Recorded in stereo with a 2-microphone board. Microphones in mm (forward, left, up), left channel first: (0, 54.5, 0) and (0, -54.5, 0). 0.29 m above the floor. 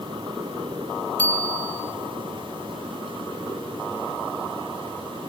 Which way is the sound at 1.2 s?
15° left (ahead or behind).